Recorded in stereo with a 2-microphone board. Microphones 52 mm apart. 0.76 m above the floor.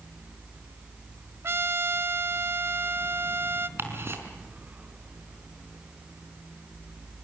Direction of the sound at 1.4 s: 50° right (ahead or behind).